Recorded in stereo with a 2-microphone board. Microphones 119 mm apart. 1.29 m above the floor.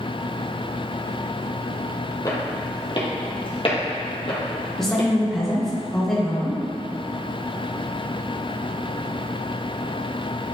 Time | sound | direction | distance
2.2 | footsteps | 35° left (ahead or behind) | 1.9 m
4.8 | a woman speaking | 5° left (ahead or behind) | 1.1 m